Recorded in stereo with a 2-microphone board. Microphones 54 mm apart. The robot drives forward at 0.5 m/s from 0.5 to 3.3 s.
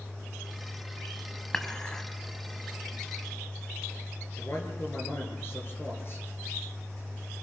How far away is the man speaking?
About 6 m.